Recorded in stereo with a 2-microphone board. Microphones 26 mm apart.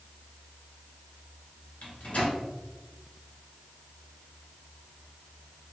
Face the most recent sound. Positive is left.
turn(degrees=65)  # may be behind; listen again after turning